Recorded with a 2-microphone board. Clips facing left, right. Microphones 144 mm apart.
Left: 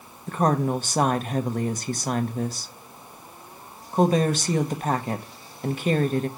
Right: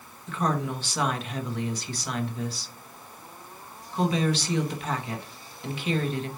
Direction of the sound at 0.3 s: 45° left (ahead or behind).